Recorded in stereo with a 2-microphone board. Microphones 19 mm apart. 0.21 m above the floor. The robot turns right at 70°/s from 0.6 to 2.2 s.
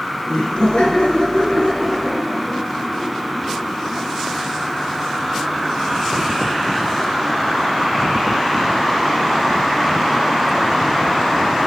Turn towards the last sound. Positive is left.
turn(degrees=0)  # may be behind; listen again after turning